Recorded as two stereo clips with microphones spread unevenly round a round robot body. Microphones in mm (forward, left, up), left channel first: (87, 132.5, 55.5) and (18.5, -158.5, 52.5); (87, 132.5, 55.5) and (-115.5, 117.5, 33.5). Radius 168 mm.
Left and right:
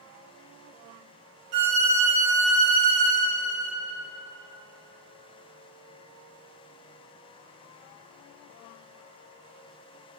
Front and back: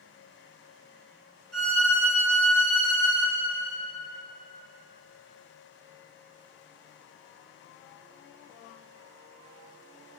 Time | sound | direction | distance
1.5 | a violin | 85° right | 1.5 m